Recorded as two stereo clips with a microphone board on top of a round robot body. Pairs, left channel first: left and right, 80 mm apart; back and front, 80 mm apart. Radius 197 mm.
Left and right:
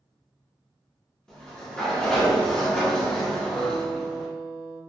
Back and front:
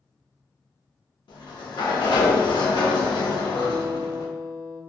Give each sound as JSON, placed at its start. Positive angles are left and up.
{"t": 1.3, "sound": "a sliding door", "azimuth_deg": 170, "distance_m": 0.7}
{"t": 3.5, "sound": "a guitar", "azimuth_deg": 135, "distance_m": 0.7}